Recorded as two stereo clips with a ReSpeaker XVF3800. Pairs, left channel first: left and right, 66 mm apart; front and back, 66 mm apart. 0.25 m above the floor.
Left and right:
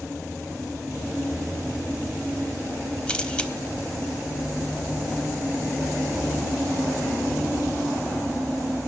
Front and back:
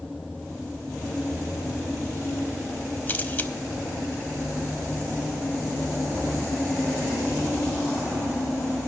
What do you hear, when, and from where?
3.1 s a camera shutter: 30° left, 0.8 m